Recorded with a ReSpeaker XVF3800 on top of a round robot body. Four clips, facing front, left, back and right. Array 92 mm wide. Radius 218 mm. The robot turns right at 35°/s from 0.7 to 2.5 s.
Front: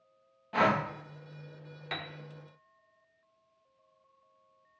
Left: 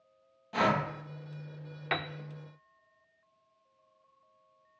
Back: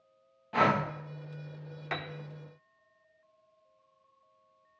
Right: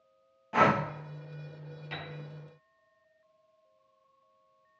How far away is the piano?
About 0.7 m.